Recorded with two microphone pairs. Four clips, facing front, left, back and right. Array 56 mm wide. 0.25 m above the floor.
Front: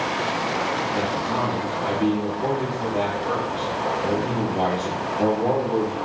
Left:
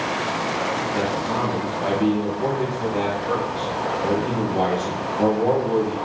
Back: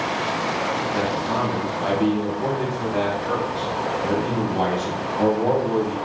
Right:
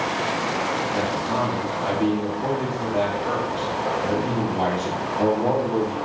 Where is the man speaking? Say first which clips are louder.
Even, back 1 dB; 150° left, 1.1 m.